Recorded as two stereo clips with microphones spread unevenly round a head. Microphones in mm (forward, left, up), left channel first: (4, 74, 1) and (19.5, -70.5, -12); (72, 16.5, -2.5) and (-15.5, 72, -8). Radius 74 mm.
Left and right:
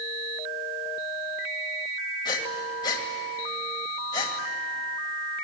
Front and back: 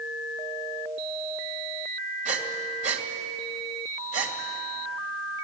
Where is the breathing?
160° left, 2 m.